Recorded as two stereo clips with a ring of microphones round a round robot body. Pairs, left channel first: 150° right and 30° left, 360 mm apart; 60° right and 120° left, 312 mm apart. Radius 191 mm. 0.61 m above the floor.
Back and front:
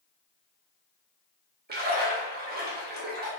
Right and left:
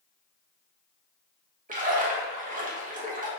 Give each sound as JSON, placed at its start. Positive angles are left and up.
{"t": 1.7, "sound": "a splash", "azimuth_deg": 75, "distance_m": 0.7}